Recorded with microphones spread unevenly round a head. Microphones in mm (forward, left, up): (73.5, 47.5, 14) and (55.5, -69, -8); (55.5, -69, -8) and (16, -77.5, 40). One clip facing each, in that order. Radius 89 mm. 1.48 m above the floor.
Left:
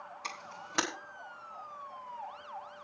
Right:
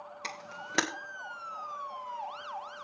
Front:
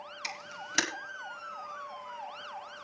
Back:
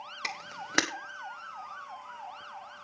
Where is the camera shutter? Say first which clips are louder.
Right 3 dB, back 3 dB; 155° right, 1.7 m.